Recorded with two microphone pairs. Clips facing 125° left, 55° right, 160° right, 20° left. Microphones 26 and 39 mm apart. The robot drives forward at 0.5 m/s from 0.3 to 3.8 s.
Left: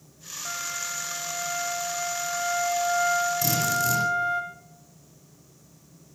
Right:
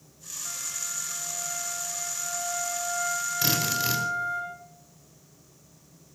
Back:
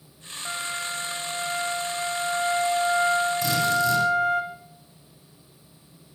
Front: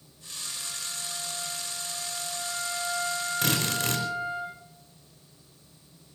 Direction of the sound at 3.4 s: 5° right.